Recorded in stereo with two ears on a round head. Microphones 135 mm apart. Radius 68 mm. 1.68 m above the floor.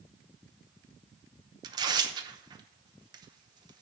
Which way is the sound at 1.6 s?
30° right (ahead or behind).